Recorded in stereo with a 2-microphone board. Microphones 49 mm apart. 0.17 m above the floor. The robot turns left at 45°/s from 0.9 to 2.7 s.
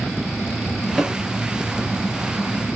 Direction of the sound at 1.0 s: Centre (ahead or behind).